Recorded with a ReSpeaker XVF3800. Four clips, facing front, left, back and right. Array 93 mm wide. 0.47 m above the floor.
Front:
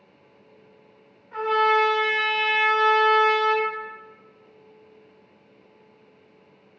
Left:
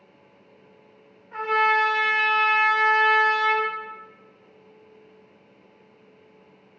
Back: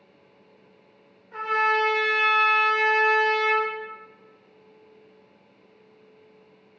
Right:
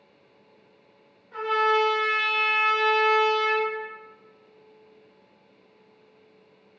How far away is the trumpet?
About 1.9 m.